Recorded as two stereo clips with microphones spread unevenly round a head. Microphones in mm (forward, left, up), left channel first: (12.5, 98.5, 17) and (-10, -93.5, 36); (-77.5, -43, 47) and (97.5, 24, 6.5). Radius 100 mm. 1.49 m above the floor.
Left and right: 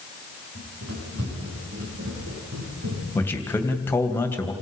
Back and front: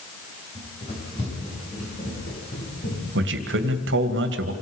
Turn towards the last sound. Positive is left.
turn(degrees=5)